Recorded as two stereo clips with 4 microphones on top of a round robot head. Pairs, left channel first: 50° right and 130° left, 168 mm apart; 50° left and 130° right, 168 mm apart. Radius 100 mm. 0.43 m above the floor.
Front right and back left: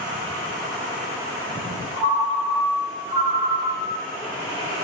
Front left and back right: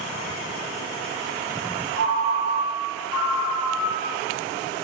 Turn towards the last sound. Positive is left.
turn(degrees=65)